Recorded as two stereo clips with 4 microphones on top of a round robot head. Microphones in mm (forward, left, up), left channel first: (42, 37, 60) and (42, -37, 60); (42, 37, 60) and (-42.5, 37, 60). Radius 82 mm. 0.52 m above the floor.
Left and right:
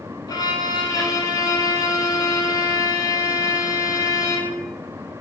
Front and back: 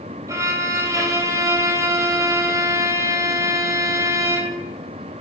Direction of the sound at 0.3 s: 130° left.